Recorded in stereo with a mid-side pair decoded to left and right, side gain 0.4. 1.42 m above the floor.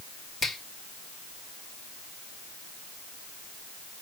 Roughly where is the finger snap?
Ahead left.